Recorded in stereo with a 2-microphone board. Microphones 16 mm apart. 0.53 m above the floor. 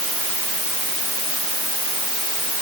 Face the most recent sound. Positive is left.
No sound to turn to.